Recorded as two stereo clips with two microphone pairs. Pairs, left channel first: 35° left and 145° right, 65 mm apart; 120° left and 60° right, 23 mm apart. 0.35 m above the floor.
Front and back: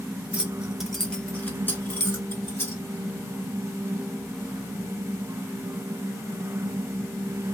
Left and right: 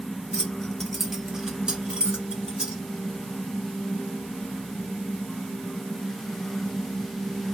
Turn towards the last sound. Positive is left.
turn(degrees=-20)